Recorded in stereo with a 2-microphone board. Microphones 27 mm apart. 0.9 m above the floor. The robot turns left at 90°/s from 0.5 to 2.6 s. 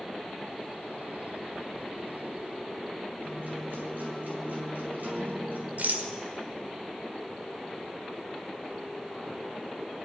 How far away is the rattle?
About 1.7 m.